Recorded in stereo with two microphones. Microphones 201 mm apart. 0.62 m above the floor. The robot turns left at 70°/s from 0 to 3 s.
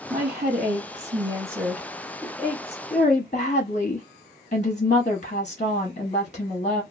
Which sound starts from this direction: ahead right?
A woman speaking, at 0.1 s.